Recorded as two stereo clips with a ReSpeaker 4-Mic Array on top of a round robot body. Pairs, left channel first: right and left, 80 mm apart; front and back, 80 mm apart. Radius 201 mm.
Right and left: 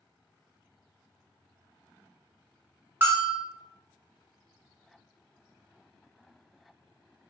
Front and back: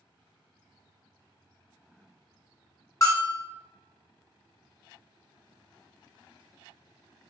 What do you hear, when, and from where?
3.0 s a bell: 35° left, 0.9 m